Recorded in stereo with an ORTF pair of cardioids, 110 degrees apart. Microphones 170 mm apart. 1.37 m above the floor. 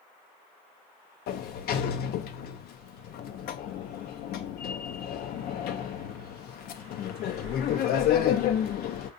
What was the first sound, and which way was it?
A sliding door, 65° left.